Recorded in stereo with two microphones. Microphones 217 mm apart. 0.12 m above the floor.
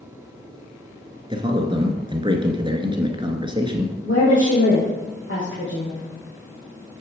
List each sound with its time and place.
1.3 s a man speaking: 20° right (ahead or behind), 1.4 m
4.0 s a woman speaking: 65° left (ahead or behind), 3.5 m